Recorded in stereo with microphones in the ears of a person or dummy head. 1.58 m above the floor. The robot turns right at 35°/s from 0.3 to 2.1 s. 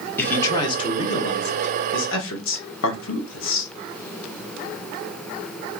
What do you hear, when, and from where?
0.2 s a man speaking: 15° left, 1.0 m; by 3.7 s 80° left, 1.0 m